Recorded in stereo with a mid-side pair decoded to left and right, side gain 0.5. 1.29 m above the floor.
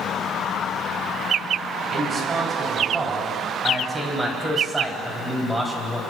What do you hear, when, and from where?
1.9 s a man speaking: 40° right, 9.5 m; by 6.0 s 5° right, 7.5 m